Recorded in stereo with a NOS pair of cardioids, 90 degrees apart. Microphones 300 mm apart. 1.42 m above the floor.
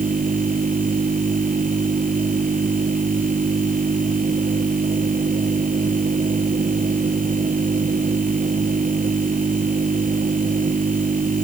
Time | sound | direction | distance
0.0 | a machine running | 30° right | ?